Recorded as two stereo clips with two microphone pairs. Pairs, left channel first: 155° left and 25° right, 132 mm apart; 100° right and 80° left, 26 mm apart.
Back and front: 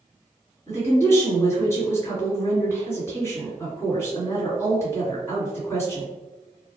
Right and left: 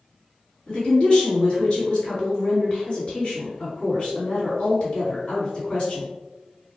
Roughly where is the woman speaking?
Behind right.